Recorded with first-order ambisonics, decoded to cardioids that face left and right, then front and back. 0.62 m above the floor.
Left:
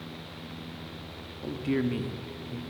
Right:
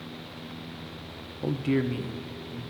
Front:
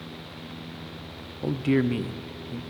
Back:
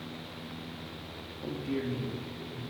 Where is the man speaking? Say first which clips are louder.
Right 2 dB, front 10 dB; 40° right, 0.7 m; by 2.6 s 25° left, 1.7 m.